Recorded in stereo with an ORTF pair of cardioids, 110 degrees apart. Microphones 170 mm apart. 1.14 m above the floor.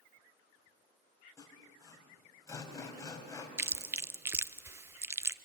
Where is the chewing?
15° right, 0.6 m.